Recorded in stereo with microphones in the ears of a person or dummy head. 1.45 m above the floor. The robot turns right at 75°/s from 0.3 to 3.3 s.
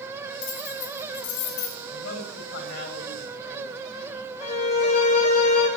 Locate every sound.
0.4 s keys jangling: 40° left, 3 m; by 1.8 s 140° left, 3 m
1.9 s a man speaking: 65° left, 9.5 m; by 4.2 s 170° left, 9.5 m
4.4 s a violin: 35° left (ahead or behind), 2 m